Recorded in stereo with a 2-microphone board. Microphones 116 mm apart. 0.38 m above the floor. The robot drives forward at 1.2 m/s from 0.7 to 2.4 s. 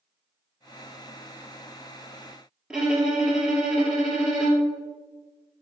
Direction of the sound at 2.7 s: 5° right (ahead or behind).